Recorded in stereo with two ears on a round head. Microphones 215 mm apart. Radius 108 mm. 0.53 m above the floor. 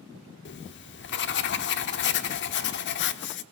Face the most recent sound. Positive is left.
turn(degrees=50)  # may be behind; listen again after turning